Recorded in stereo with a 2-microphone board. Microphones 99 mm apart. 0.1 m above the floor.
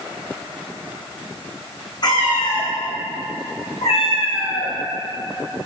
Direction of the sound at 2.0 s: 45° left (ahead or behind).